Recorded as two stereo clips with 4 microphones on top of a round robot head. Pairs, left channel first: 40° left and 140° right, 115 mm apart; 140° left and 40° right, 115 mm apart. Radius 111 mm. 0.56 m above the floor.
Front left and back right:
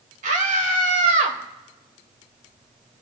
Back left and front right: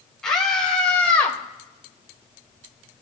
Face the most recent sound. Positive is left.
turn(degrees=-145)